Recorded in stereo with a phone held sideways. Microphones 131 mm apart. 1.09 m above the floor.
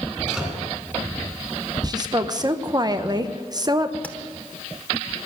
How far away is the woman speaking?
About 0.8 m.